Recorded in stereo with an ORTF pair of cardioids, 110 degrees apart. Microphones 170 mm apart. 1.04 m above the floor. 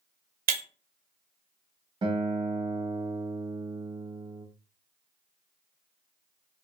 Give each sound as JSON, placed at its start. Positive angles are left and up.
{"t": 0.5, "sound": "breaking glass", "azimuth_deg": -60, "distance_m": 0.9}
{"t": 2.0, "sound": "a guitar", "azimuth_deg": -30, "distance_m": 0.7}